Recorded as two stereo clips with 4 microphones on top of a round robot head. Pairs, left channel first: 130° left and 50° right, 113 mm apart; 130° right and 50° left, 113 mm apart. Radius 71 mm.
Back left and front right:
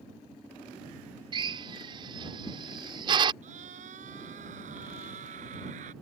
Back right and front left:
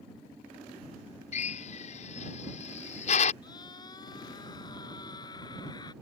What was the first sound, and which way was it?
A drill, 100° right.